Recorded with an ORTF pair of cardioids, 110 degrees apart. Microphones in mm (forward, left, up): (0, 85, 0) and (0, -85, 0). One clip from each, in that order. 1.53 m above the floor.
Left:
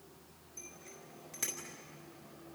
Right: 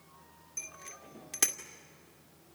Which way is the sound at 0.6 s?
65° right.